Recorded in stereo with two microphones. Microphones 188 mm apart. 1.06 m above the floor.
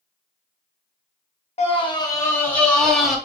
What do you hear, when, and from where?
1.6 s a scream: 35° left (ahead or behind), 0.9 m; by 3.2 s centre (ahead or behind), 1.5 m